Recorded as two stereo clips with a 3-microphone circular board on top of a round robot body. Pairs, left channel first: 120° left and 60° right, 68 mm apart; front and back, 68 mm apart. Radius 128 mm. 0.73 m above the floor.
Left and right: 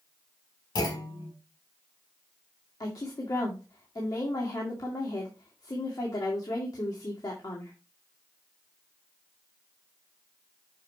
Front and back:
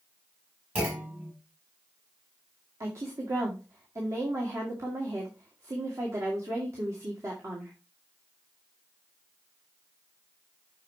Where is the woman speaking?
140° left, 2 m.